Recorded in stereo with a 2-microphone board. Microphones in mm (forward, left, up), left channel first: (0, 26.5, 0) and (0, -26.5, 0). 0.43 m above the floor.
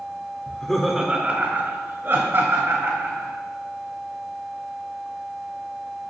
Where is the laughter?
20° left (ahead or behind), 0.8 m; by 3.3 s 55° right (ahead or behind), 2.5 m.